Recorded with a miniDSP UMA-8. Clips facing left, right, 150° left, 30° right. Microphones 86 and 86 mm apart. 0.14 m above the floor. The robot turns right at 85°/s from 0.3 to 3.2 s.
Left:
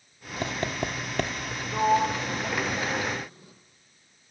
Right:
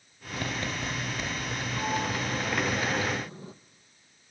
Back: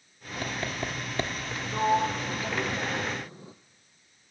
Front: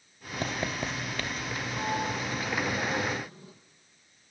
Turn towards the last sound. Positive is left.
turn(degrees=-150)